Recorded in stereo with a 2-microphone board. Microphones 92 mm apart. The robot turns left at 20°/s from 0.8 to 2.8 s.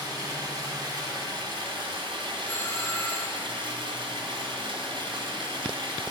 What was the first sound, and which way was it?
Running water, 65° right.